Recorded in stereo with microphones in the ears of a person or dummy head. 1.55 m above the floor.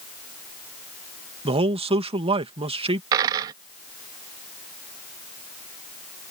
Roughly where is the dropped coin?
Centre.